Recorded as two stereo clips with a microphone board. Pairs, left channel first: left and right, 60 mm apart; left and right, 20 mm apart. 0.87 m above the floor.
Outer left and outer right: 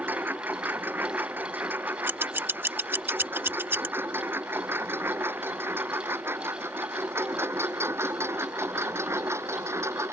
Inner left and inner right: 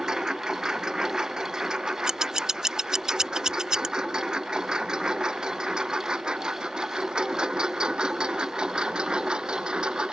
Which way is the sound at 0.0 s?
35° right (ahead or behind).